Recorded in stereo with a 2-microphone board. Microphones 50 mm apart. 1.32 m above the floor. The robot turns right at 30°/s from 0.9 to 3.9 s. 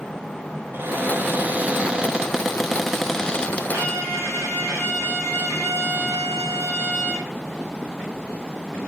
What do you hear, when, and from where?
0.7 s a cupboard door: 55° right, 0.9 m; by 3.6 s 25° left, 0.9 m
3.7 s a violin: 75° right (ahead or behind), 5 m; by 7.3 s 80° right, 5 m